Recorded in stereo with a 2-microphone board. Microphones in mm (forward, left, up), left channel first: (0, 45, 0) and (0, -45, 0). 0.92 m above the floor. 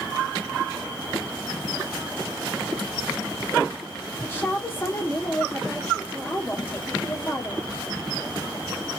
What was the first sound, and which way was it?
A woman speaking, 20° left (ahead or behind).